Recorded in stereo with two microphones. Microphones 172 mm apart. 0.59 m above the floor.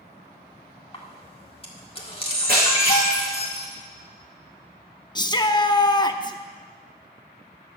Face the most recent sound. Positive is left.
turn(degrees=25)  # may be behind; listen again after turning